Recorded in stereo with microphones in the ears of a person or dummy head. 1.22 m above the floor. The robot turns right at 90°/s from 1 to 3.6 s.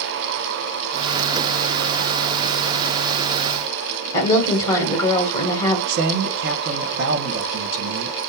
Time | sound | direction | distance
4.1 | a woman speaking | 15° left (ahead or behind) | 1.1 m
5.9 | a man speaking | 60° right (ahead or behind) | 0.8 m